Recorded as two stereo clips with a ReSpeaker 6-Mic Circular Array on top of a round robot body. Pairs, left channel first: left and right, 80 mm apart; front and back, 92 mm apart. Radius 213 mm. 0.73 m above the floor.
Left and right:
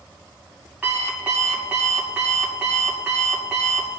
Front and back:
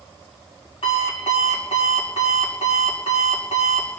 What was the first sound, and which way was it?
An alarm clock, 15° right.